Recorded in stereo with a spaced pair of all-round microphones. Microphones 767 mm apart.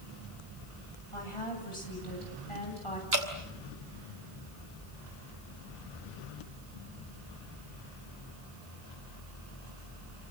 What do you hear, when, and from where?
1.1 s a woman speaking: 40° left (ahead or behind), 9 m
3.1 s dripping: 80° right, 4.5 m